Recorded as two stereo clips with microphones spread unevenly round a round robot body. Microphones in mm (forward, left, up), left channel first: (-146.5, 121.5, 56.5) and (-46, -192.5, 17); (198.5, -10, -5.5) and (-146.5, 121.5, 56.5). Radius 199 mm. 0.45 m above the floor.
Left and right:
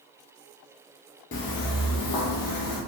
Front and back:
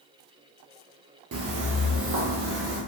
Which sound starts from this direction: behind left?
Footsteps, at 1.3 s.